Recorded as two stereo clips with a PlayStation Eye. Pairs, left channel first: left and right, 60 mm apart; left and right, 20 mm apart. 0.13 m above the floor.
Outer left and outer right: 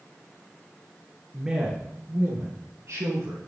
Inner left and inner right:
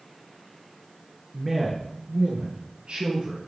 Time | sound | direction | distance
1.3 | a man speaking | 5° right (ahead or behind) | 2.5 m